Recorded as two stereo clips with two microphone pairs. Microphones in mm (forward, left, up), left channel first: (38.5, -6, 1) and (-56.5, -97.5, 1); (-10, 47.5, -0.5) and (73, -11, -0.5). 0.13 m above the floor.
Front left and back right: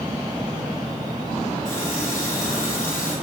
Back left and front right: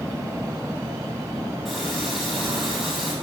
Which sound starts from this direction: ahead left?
A running tap, at 1.6 s.